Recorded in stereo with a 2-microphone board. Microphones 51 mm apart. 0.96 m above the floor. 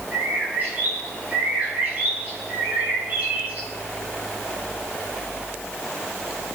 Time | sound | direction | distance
0.1 | a bird | 35° right (ahead or behind) | 5.5 m